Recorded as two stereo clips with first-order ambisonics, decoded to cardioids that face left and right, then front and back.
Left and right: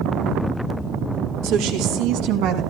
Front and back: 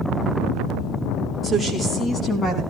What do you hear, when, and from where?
1.4 s a woman speaking: 90° right, 4.5 m; by 2.6 s 65° right, 5 m